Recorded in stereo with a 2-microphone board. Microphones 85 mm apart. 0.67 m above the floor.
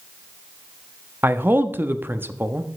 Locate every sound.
1.2 s a man speaking: 25° right (ahead or behind), 0.6 m